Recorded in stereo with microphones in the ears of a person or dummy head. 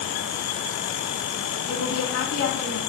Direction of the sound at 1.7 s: 80° left.